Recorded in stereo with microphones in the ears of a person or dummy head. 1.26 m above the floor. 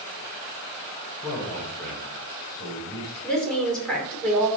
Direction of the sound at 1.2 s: 5° left (ahead or behind).